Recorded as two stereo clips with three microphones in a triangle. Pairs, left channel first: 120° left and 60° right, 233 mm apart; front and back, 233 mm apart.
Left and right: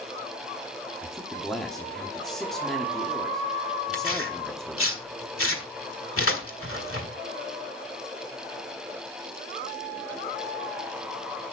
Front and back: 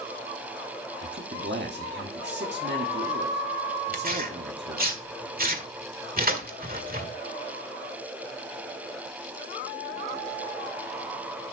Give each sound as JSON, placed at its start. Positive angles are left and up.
{"t": 1.0, "sound": "a man speaking", "azimuth_deg": -150, "distance_m": 1.2}
{"t": 3.9, "sound": "tearing paper", "azimuth_deg": 135, "distance_m": 1.6}